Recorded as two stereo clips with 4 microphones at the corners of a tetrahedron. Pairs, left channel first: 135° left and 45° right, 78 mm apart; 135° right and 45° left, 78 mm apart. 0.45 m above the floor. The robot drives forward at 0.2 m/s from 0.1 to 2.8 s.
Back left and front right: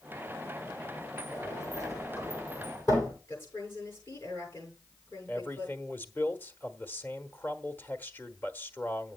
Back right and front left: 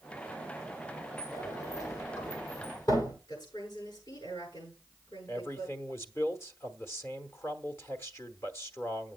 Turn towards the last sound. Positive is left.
turn(degrees=-170)